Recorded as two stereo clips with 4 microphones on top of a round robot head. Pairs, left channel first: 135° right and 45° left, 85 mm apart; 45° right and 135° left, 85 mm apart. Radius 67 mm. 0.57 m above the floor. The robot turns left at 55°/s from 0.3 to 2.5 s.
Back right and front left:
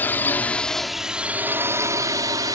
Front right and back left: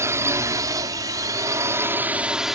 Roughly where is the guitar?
I don't hear a guitar.